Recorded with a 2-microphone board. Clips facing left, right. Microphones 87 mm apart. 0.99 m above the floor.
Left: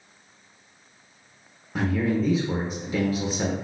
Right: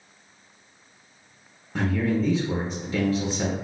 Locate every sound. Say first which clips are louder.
1.8 s a man speaking: even; 10° left (ahead or behind), 0.6 m